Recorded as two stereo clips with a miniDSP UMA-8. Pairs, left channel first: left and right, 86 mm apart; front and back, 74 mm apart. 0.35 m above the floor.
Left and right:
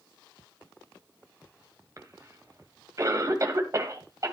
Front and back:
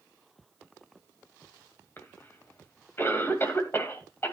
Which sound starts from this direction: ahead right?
A cough, at 2.0 s.